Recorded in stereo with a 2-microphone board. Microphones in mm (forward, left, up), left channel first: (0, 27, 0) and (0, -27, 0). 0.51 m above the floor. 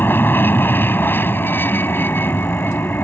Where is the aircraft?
40° left (ahead or behind).